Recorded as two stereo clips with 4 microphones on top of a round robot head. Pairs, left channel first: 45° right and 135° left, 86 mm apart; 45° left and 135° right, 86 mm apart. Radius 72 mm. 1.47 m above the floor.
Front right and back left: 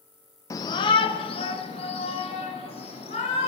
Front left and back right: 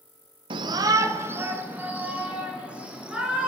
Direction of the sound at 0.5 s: 105° right.